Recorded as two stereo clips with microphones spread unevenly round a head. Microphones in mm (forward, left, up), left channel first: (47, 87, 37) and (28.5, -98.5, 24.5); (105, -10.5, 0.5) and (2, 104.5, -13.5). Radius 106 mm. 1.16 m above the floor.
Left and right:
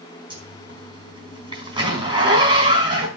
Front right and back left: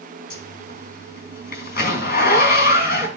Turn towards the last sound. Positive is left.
turn(degrees=-30)